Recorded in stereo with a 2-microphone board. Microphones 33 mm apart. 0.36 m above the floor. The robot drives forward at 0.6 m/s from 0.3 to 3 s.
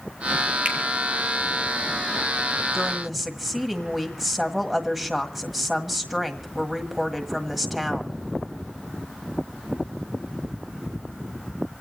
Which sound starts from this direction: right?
A finger snap, at 0.7 s.